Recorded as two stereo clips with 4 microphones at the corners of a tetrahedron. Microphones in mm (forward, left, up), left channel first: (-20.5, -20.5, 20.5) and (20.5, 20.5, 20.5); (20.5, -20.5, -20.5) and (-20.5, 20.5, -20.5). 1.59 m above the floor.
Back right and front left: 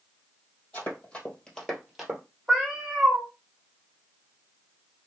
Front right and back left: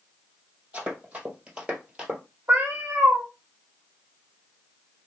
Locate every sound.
0.7 s running footsteps: 170° right, 2 m; by 2.2 s 90° left, 1.6 m
2.5 s a cat meowing: 120° left, 1.0 m